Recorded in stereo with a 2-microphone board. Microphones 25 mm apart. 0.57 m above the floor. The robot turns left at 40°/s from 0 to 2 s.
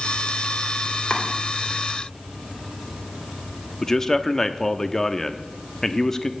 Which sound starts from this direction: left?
Chopping, at 1.1 s.